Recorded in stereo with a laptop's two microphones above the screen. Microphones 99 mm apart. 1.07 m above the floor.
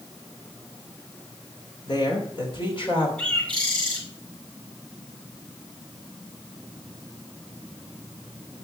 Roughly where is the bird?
Centre.